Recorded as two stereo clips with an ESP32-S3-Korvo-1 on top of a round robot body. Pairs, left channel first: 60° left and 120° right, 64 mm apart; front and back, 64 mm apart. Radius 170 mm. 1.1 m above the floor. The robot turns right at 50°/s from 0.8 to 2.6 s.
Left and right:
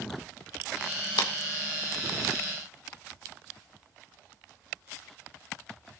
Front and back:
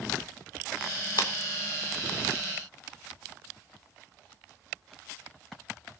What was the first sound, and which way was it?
A clap, 40° left.